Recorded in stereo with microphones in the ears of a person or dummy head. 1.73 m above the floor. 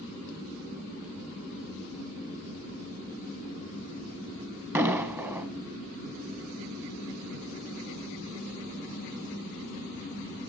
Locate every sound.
4.8 s an explosion: 10° right (ahead or behind), 1.2 m